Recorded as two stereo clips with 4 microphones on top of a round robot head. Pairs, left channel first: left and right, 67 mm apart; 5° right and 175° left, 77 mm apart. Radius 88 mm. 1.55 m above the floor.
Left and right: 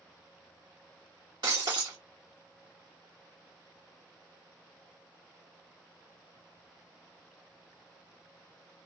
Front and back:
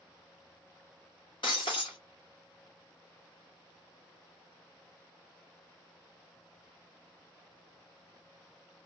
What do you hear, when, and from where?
1.4 s breaking glass: 45° right, 0.9 m